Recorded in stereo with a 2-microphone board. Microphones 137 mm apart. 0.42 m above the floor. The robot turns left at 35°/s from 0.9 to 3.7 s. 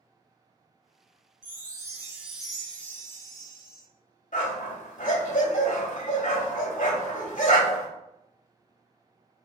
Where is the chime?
145° right, 1.0 m; by 3.8 s 135° left, 1.0 m.